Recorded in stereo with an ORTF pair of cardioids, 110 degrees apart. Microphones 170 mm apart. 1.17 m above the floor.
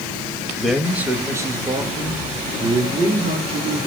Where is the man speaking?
Straight ahead, 0.9 m; by 3.9 s 35° right, 2.5 m.